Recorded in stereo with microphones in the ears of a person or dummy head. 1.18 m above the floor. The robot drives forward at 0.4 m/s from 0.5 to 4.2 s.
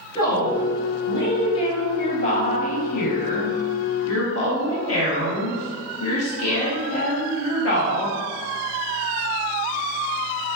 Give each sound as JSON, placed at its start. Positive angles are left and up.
{"t": 0.1, "sound": "a woman speaking", "side_deg": 25, "distance_m": 1.7}